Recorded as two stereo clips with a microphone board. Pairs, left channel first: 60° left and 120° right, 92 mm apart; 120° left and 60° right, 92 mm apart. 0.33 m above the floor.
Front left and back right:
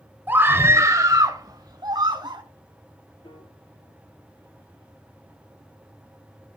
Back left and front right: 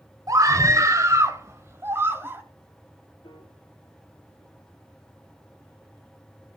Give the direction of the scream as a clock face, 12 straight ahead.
2 o'clock.